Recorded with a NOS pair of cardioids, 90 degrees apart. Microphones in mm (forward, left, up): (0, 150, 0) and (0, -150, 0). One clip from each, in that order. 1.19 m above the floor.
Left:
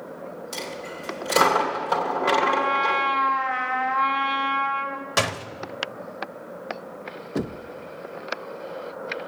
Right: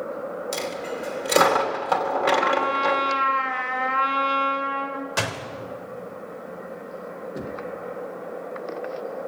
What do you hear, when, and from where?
0.5 s a dropped coin: 35° right, 2.5 m
2.4 s a trumpet: 10° right, 2 m
5.2 s a door slam: 30° left, 1.4 m
7.3 s knocking: 45° left, 0.7 m